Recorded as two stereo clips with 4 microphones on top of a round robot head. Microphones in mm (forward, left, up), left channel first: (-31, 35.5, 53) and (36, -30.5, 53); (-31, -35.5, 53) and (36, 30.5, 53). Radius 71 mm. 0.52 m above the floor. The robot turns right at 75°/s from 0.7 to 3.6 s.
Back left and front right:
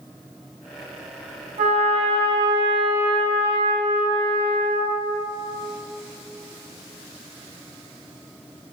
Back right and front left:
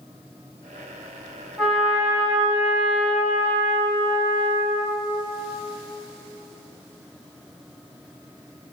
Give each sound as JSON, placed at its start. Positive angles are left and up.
{"t": 1.6, "sound": "a trumpet", "azimuth_deg": -55, "distance_m": 2.5}